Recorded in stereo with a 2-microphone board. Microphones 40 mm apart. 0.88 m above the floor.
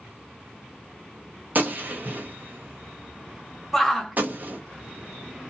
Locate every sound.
1.6 s a gunshot: 50° right (ahead or behind), 0.8 m
3.7 s a shout: 5° left (ahead or behind), 0.9 m